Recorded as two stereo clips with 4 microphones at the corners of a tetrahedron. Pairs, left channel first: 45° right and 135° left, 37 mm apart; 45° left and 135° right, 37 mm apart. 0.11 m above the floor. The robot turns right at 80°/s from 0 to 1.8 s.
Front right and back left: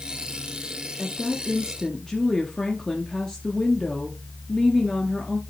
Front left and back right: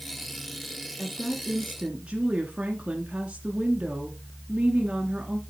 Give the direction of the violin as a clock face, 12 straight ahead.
No violin in this recording.